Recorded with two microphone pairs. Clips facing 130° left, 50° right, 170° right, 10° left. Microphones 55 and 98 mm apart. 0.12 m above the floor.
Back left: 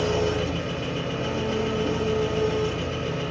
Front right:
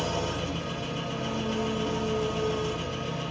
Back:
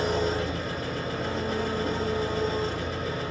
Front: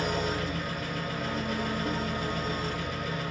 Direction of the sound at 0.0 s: 140° left.